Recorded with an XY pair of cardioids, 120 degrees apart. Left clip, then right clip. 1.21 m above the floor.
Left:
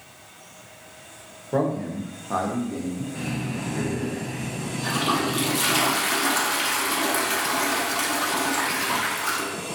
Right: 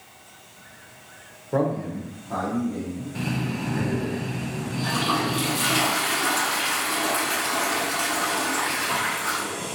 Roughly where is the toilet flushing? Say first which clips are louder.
Even; ahead left.